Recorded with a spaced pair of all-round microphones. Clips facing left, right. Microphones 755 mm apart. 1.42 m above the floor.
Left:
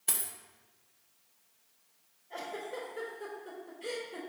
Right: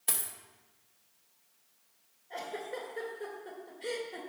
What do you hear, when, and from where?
0.1 s a dropped coin: 20° right (ahead or behind), 0.9 m
2.3 s a giggle: 30° right (ahead or behind), 2 m